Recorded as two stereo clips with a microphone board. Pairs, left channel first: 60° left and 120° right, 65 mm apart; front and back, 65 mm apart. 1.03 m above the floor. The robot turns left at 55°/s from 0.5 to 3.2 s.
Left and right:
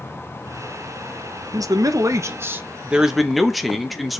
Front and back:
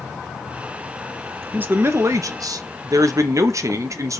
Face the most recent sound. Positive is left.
turn(degrees=150)